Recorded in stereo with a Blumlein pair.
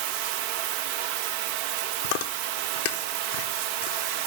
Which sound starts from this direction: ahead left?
Chewing, at 2.0 s.